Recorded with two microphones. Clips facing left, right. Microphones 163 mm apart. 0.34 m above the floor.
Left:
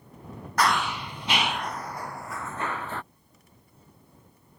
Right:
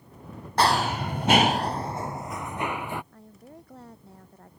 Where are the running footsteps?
30° right (ahead or behind); by 3.0 s 10° right (ahead or behind).